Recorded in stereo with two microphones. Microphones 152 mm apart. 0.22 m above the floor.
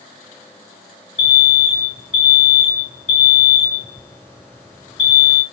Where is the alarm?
15° left (ahead or behind), 3 m.